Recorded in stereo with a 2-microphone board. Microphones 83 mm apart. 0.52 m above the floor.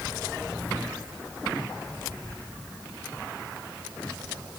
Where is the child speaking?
I don't hear a child speaking.